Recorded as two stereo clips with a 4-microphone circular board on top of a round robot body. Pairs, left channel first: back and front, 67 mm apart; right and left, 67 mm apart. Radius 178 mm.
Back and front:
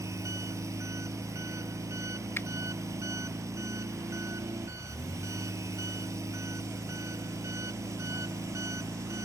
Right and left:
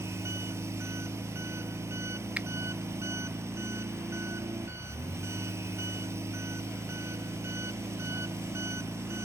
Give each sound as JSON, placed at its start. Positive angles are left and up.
{"t": 0.0, "sound": "an engine running", "azimuth_deg": 40}
{"t": 2.4, "sound": "a finger snap", "azimuth_deg": 145}